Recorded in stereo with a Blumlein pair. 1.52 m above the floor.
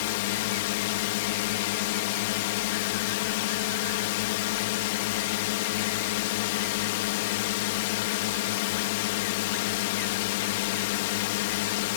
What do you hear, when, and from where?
0.0 s a drone: 50° left